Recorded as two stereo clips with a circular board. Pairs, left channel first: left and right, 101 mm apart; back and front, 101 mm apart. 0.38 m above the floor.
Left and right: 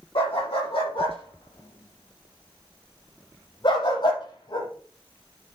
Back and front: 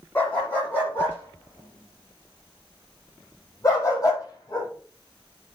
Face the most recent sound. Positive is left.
turn(degrees=130)